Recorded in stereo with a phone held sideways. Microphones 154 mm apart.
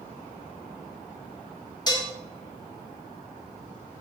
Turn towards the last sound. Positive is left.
turn(degrees=25)  # may be behind; listen again after turning